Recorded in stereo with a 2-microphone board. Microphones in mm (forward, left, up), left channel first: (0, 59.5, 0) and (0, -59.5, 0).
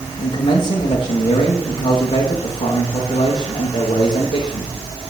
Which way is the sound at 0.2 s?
40° left (ahead or behind).